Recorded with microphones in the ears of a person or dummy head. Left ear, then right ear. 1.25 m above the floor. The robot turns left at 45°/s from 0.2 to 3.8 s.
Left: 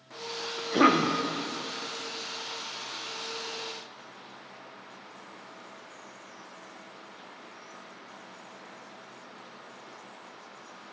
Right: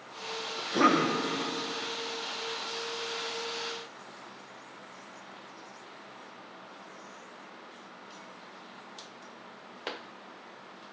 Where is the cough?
5° left (ahead or behind), 0.6 m; by 1.1 s 30° left (ahead or behind), 0.6 m.